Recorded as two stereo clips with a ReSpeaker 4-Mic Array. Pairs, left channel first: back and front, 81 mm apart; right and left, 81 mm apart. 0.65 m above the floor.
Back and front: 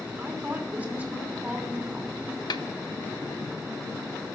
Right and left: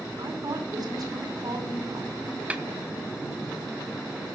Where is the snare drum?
160° left, 0.7 m.